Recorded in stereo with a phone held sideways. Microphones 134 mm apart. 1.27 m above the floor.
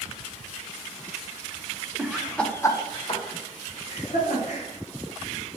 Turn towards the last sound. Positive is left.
turn(degrees=65)  # may be behind; listen again after turning